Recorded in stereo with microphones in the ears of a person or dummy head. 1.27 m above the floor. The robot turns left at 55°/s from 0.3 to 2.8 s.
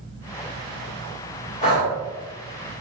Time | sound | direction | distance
1.6 | breathing | 30° left (ahead or behind) | 1.0 m